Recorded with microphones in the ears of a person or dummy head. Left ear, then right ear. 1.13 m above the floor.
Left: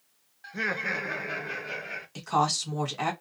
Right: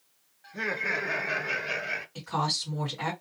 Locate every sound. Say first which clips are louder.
0.4 s laughter: even; 35° left (ahead or behind), 0.7 m; by 2.0 s 50° right (ahead or behind), 0.8 m
2.1 s a woman speaking: left 6 dB; 70° left (ahead or behind), 1.5 m